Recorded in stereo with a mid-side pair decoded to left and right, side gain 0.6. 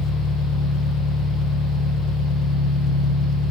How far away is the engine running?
About 1.1 m.